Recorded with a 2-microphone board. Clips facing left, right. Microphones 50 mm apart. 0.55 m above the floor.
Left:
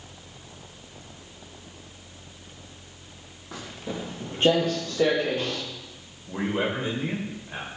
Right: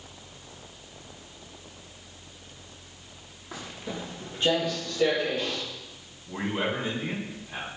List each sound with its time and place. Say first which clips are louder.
3.5 s footsteps: left 2 dB; centre (ahead or behind), 1.3 m; by 5.6 s 35° left (ahead or behind), 2 m
6.3 s a man speaking: left 2 dB; 35° left (ahead or behind), 1.9 m